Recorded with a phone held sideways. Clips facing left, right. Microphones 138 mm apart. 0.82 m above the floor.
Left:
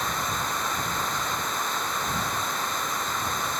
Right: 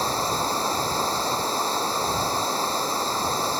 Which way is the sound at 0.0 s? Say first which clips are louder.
Right 5 dB; 30° right (ahead or behind).